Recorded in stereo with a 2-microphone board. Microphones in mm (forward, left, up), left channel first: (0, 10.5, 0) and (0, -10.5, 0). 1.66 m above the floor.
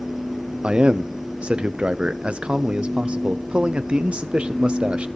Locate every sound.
0.6 s a man speaking: 60° right (ahead or behind), 0.8 m